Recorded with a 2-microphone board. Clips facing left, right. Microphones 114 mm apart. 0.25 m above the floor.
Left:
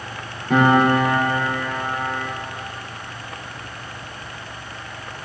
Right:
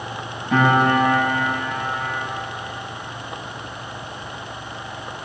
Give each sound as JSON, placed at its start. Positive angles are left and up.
{"t": 0.5, "sound": "a piano", "side_deg": 60, "distance_m": 4.0}